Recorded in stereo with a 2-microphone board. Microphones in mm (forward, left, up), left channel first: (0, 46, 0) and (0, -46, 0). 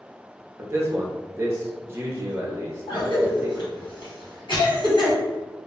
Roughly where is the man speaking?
Right.